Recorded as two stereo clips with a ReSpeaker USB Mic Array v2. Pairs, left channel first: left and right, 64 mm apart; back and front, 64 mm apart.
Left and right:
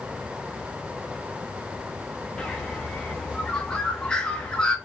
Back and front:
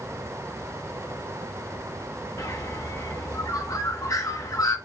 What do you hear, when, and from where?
2.4 s a bird: 165° left, 1.3 m